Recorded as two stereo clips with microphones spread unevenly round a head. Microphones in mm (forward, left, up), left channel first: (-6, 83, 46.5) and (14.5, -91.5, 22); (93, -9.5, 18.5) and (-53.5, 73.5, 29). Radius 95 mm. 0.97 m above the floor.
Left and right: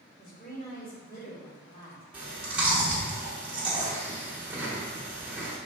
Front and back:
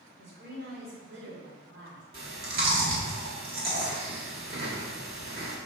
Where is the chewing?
170° right, 1.3 m.